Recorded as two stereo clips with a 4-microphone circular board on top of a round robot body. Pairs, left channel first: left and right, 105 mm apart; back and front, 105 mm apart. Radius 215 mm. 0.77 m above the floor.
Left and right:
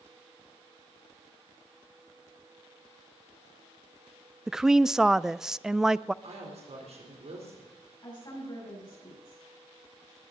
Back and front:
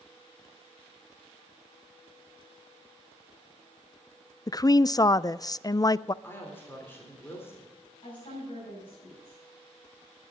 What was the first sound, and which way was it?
A woman speaking, 170° right.